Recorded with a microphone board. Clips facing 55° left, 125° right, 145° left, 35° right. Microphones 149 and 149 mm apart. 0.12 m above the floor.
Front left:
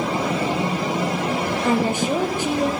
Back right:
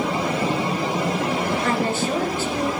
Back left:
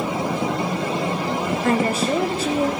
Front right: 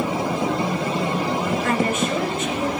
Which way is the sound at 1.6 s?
120° left.